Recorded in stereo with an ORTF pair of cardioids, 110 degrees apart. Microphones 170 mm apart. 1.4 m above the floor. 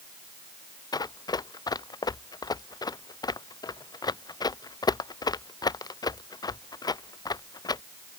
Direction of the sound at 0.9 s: 25° left.